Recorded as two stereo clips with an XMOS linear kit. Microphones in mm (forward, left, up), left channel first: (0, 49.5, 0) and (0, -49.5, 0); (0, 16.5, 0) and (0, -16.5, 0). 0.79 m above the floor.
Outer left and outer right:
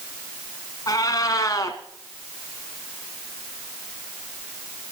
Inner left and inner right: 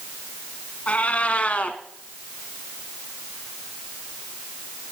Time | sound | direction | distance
0.9 | a cat meowing | 40° left (ahead or behind) | 1.3 m